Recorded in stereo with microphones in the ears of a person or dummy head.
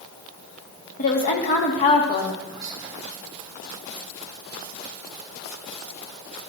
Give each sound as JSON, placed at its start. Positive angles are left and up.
{"t": 1.0, "sound": "a woman speaking", "side_deg": 55, "distance_m": 2.0}
{"t": 2.5, "sound": "whispering", "side_deg": -10, "distance_m": 0.6}